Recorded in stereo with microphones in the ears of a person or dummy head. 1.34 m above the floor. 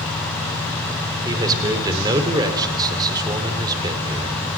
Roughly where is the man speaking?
Right.